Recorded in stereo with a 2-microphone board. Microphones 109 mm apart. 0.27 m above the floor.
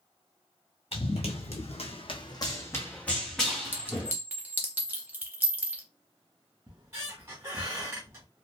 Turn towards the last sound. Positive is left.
turn(degrees=-25)  # may be behind; listen again after turning